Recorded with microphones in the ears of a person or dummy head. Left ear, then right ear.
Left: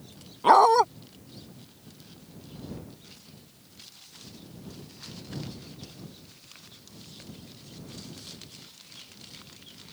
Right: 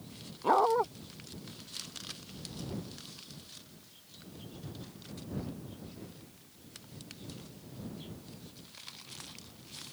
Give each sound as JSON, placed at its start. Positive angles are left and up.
{"t": 0.4, "sound": "a dog barking", "side_deg": 70}